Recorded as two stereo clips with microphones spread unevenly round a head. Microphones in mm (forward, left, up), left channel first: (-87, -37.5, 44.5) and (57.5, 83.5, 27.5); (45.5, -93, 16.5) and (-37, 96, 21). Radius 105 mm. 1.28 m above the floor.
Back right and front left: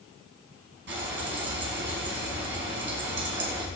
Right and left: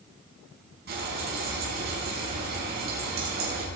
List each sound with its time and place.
0.9 s frying: 70° left, 5.5 m